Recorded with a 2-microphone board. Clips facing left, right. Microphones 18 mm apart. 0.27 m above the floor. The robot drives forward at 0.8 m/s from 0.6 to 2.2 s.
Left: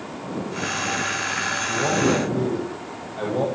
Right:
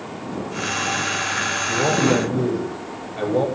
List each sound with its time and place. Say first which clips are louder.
1.7 s a man speaking: right 2 dB; 35° right (ahead or behind), 7.5 m